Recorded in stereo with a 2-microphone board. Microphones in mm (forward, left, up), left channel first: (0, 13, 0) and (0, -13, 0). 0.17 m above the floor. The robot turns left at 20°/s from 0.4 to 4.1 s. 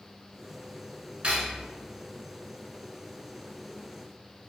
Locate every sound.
1.2 s cutlery clinking: 45° right (ahead or behind), 1.1 m; by 1.6 s 40° right (ahead or behind), 1.1 m